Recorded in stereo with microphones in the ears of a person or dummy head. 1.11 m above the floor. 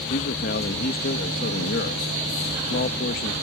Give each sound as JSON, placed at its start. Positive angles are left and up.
{"t": 0.1, "sound": "a man speaking", "side_deg": 50}